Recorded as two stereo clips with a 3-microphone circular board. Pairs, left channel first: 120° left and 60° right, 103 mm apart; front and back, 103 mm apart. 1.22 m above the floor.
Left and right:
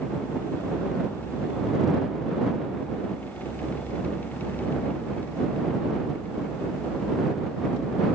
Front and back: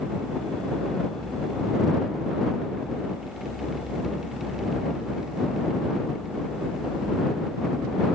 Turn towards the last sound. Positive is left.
No sound to turn to.